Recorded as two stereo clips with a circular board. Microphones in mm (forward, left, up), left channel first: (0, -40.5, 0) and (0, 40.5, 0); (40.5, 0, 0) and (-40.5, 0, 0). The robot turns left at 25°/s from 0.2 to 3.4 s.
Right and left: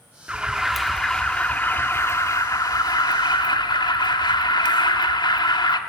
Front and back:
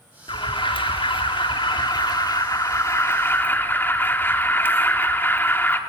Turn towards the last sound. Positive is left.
turn(degrees=-65)